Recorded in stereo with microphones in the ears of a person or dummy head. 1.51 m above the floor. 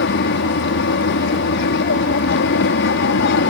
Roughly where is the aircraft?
Left.